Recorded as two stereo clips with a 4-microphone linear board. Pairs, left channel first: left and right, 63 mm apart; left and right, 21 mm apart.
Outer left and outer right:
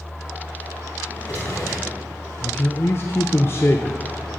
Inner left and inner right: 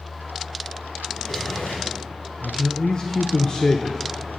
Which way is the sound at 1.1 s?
65° left (ahead or behind).